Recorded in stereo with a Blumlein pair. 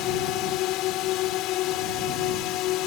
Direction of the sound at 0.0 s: 40° left.